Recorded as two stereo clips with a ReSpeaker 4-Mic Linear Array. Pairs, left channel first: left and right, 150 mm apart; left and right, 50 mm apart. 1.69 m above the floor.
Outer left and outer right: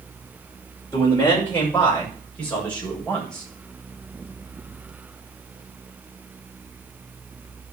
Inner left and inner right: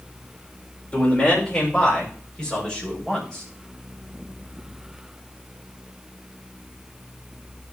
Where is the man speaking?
20° left (ahead or behind), 6 m; by 3.4 s 5° left (ahead or behind), 8 m.